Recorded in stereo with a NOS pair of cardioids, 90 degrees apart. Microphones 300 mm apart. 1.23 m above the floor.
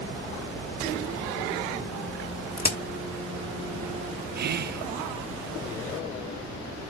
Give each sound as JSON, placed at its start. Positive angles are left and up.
{"t": 2.6, "sound": "a crack", "azimuth_deg": 30, "distance_m": 1.4}
{"t": 4.3, "sound": "whispering", "azimuth_deg": -35, "distance_m": 0.5}